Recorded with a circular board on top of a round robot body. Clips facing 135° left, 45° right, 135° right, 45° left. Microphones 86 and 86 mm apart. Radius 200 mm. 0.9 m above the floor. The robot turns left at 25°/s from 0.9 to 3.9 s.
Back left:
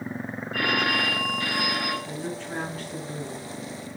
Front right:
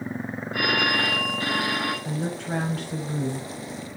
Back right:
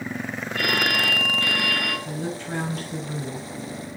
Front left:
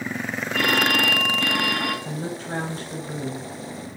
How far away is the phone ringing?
About 7 m.